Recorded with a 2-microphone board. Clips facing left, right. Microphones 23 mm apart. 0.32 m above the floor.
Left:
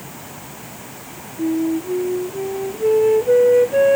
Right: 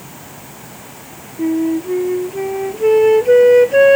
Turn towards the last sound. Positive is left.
turn(degrees=-55)  # may be behind; listen again after turning